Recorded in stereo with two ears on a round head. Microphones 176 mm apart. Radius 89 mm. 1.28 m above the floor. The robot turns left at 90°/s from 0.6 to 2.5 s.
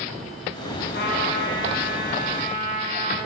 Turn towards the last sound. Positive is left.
turn(degrees=-55)